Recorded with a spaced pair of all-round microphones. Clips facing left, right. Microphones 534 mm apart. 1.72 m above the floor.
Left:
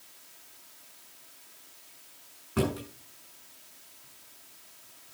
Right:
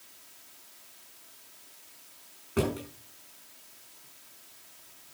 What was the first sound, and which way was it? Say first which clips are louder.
A drawer: even; 20° left (ahead or behind).